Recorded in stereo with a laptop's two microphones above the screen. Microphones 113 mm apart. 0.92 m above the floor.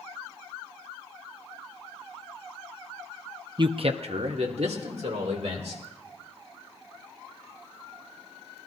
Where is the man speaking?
40° right (ahead or behind), 0.6 m; by 5.8 s 75° right (ahead or behind), 3.5 m.